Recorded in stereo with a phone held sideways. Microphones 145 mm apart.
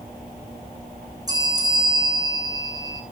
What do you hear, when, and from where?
1.3 s a bell: 25° right (ahead or behind), 5.5 m